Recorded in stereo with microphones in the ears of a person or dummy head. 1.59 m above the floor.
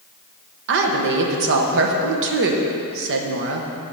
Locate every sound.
0.7 s a woman speaking: 65° right (ahead or behind), 1.0 m